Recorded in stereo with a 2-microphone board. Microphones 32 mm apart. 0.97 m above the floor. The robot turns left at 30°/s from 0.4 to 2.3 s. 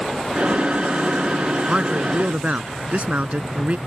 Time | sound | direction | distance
1.7 | a man speaking | 30° right (ahead or behind) | ?